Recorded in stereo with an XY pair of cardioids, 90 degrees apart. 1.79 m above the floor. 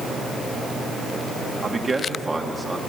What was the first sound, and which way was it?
A man speaking, 25° right.